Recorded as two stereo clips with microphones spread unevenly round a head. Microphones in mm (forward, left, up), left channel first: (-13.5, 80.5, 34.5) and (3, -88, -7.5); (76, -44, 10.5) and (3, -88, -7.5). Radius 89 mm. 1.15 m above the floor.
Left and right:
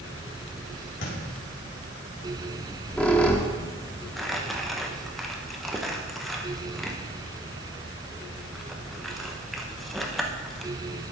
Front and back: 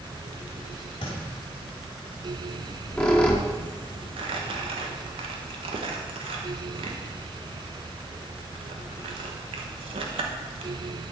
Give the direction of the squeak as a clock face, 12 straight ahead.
10 o'clock.